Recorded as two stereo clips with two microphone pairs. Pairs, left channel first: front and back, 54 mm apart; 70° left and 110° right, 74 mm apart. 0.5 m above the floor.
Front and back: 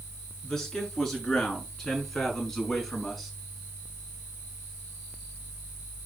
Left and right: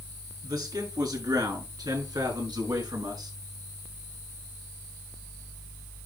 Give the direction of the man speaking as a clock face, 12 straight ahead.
3 o'clock.